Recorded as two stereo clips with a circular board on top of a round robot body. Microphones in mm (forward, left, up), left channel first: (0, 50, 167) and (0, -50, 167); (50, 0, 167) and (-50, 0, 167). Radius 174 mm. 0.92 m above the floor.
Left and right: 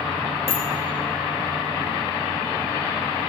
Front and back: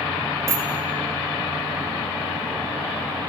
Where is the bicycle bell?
115° left, 6 m.